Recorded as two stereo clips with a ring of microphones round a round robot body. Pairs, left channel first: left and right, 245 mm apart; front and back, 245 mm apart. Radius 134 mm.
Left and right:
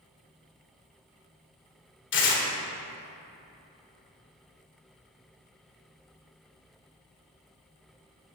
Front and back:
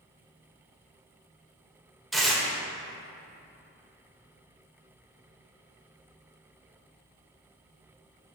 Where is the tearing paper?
90° left, 1.7 m.